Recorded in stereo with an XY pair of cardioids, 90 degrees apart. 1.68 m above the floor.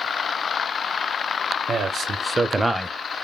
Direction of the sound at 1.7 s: 65° right.